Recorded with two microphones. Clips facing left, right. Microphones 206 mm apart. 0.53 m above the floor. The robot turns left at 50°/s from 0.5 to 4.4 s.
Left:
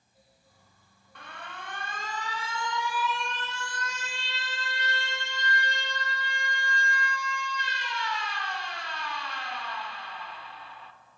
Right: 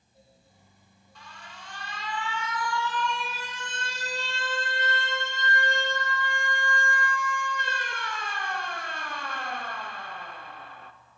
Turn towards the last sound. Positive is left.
turn(degrees=-60)